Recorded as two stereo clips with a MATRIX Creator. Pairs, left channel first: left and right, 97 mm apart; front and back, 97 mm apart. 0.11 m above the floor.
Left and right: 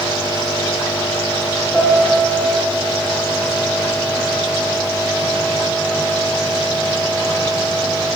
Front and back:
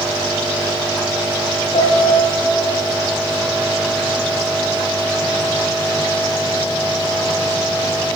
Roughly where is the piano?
Ahead.